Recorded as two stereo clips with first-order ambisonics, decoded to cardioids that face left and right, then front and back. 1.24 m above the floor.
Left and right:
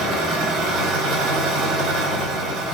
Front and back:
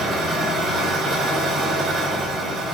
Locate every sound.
0.0 s an engine running: 110° right, 4 m